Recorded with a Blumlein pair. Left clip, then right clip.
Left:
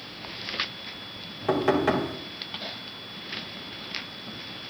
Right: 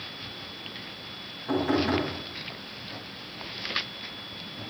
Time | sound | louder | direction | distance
1.5 | knocking | left 3 dB | 55° left | 4.5 m